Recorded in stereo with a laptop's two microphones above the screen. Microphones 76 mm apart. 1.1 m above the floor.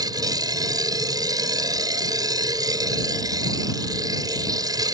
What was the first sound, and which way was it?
A machine running, 60° right (ahead or behind).